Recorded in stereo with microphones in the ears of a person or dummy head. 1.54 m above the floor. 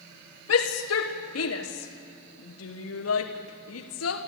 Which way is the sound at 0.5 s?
85° left.